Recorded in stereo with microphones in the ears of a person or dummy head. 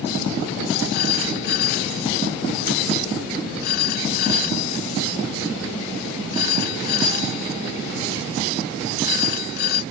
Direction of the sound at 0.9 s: 50° left (ahead or behind).